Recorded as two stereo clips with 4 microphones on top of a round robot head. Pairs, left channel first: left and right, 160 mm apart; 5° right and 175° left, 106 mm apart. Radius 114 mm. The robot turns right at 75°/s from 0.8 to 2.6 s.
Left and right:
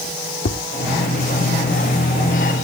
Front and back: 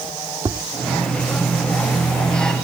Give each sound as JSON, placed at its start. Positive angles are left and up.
{"t": 0.5, "sound": "tapping", "azimuth_deg": 115, "distance_m": 1.3}